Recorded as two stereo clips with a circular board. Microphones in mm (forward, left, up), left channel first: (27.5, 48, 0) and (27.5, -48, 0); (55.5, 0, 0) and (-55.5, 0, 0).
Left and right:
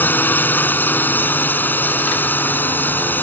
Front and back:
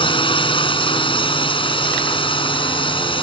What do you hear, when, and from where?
0.0 s a drone: 25° left